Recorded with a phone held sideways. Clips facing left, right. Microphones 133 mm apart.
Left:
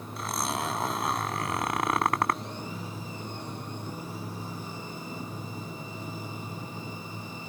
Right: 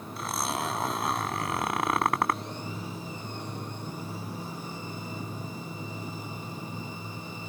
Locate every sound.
0.2 s a zipper: centre (ahead or behind)